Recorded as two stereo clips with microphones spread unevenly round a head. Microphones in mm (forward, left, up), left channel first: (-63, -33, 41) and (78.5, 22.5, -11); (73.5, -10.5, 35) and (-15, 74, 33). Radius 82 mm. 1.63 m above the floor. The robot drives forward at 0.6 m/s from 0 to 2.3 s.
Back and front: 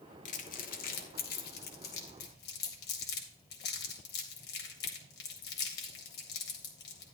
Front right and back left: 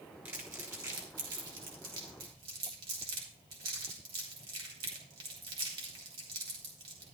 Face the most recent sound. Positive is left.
turn(degrees=-165)